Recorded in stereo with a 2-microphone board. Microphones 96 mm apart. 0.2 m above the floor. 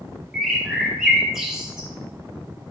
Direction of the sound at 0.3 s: 5° right (ahead or behind).